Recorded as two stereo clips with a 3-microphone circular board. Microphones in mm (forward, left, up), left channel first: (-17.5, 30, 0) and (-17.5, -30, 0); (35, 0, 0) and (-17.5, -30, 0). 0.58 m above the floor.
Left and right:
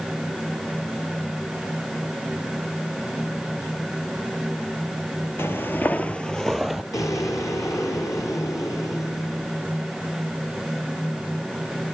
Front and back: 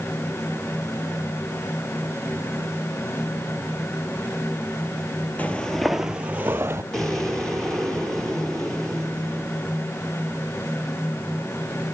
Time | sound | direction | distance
5.4 | footsteps | 80° left | 0.7 m
6.9 | an explosion | 110° left | 5 m